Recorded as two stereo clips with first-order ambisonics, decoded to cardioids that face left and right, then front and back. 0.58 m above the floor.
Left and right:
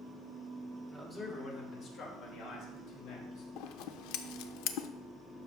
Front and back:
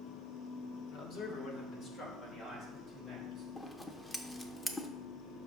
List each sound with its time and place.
0.9 s a man speaking: 10° left, 1.7 m; by 3.5 s 70° left, 3.5 m
3.6 s scissors: 85° left, 0.6 m